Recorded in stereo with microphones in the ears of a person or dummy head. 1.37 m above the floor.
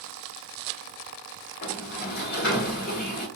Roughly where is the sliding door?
Left.